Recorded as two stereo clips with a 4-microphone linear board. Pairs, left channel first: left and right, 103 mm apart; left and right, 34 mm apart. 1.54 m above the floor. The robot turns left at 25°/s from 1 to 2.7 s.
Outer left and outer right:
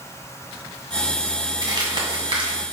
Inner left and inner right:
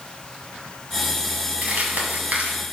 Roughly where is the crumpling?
Right.